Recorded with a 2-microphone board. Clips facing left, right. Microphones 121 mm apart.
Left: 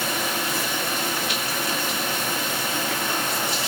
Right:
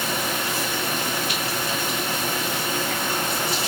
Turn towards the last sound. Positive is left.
No sound to turn to.